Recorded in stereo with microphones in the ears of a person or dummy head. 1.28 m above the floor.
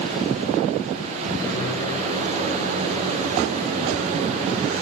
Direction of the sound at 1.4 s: 15° left (ahead or behind).